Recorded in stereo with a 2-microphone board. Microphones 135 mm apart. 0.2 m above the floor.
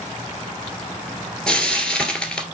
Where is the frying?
5° left (ahead or behind), 2 m.